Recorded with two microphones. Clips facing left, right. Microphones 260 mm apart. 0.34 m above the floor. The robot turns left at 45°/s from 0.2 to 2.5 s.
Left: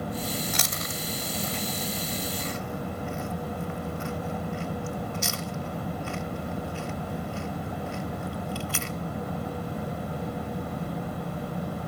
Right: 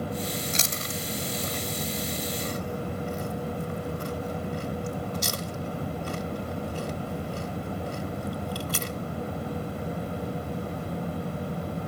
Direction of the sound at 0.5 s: 25° right (ahead or behind).